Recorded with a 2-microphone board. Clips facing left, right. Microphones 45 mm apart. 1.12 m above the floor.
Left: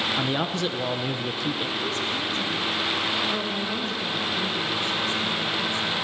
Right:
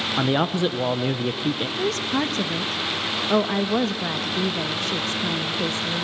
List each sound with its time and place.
0.2 s a man speaking: 20° right (ahead or behind), 0.6 m
1.8 s a woman speaking: 85° right, 1.0 m